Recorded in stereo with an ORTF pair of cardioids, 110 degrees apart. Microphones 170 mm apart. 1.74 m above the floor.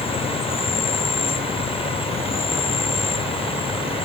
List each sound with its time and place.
0.0 s an insect: 35° left